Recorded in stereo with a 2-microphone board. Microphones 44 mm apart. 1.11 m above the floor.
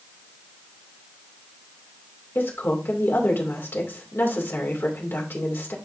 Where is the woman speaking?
55° left (ahead or behind), 3 m.